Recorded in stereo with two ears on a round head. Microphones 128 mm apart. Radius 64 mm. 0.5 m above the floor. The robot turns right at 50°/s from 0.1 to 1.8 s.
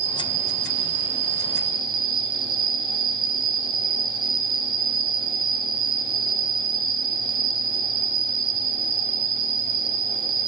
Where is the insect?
125° right, 1.7 m; by 10.5 s 40° right, 1.7 m.